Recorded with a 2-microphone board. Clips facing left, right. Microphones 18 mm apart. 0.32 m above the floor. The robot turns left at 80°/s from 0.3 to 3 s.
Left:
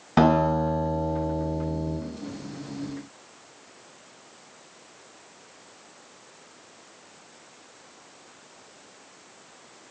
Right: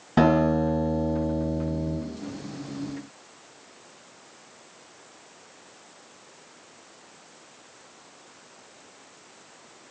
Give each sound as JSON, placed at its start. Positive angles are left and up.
{"t": 0.2, "sound": "a guitar", "azimuth_deg": 140, "distance_m": 1.9}